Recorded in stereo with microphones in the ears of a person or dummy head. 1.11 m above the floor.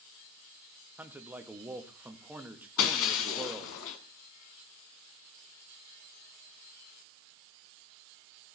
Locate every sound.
1.0 s a man speaking: 10° right (ahead or behind), 1.7 m
2.8 s breaking glass: 70° left (ahead or behind), 2.5 m